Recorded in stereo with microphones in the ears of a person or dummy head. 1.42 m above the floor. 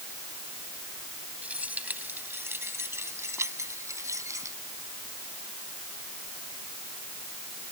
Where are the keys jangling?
10° right (ahead or behind); by 4.6 s 20° right (ahead or behind).